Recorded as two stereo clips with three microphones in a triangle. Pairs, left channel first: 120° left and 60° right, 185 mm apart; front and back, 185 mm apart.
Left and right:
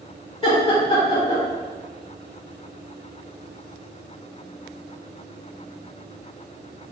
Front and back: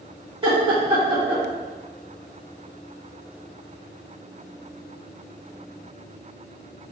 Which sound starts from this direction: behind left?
Laughter, at 0.4 s.